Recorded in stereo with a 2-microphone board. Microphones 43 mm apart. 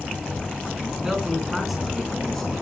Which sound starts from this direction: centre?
A man speaking, at 0.9 s.